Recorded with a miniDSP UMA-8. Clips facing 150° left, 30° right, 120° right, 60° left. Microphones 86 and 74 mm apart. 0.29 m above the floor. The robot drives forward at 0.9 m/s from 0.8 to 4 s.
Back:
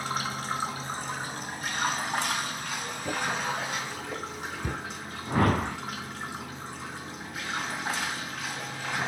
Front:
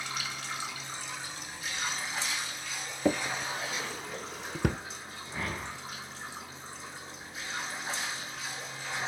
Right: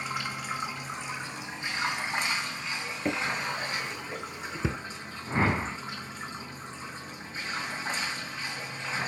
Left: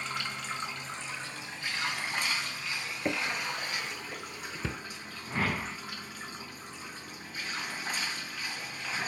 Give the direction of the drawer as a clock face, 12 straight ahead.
1 o'clock.